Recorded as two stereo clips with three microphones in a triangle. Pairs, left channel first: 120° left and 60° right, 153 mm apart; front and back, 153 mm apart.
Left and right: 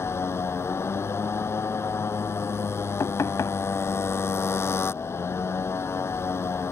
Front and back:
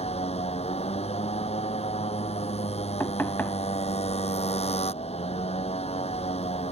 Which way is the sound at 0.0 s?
45° left.